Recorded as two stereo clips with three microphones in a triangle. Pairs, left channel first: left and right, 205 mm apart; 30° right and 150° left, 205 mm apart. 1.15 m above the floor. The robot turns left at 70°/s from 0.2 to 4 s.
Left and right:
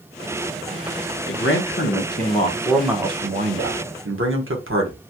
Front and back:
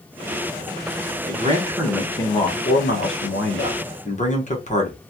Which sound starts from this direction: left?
A man speaking, at 1.3 s.